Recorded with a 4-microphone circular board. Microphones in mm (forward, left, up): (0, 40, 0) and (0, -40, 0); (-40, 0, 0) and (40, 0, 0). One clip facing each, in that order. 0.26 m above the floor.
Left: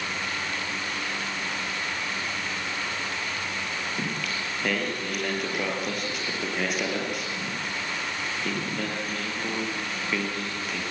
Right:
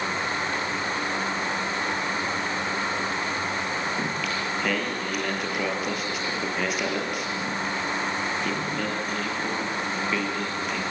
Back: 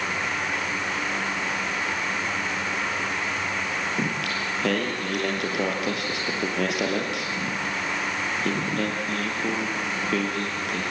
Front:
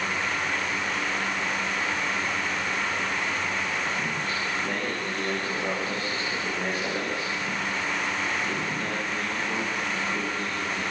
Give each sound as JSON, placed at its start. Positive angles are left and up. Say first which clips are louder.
{"t": 4.0, "sound": "singing", "louder": "right 3 dB, back 2 dB", "azimuth_deg": 180, "distance_m": 5.5}